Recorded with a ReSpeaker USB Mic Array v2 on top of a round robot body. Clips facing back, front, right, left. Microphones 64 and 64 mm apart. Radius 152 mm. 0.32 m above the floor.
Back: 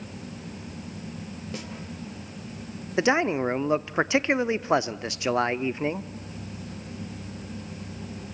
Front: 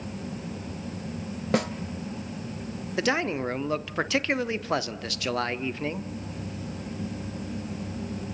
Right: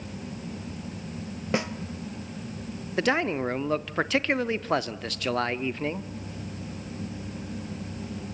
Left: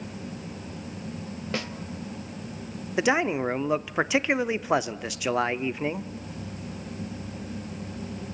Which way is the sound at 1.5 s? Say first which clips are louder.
Front 15 dB, right 5 dB; 20° right.